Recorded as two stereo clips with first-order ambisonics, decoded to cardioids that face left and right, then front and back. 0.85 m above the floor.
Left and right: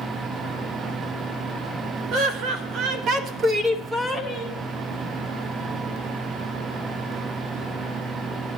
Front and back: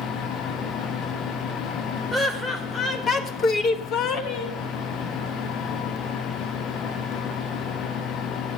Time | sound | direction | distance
2.1 | laughter | 75° right | 1.6 m